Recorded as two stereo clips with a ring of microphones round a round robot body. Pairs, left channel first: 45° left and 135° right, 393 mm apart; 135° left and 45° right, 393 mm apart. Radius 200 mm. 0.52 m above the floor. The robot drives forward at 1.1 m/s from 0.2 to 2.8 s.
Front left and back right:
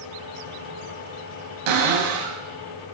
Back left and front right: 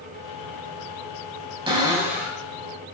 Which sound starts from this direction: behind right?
A cupboard door, at 1.7 s.